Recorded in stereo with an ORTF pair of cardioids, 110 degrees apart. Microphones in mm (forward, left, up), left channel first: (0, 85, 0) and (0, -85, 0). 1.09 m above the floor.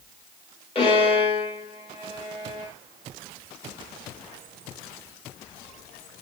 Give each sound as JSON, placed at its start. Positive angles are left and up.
{"t": 0.8, "sound": "a violin", "azimuth_deg": 35, "distance_m": 5.0}